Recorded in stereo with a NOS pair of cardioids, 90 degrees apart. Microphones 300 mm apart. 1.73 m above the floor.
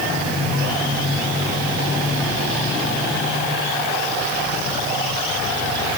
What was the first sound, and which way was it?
Only background noise.